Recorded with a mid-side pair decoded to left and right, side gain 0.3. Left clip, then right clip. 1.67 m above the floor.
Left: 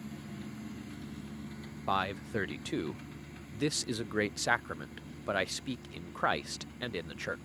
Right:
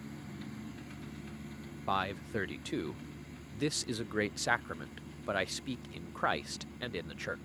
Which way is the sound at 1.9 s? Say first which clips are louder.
Left 2 dB; 15° left.